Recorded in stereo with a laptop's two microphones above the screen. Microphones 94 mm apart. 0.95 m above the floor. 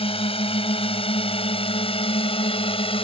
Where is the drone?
80° left; by 3.0 s 75° left (ahead or behind).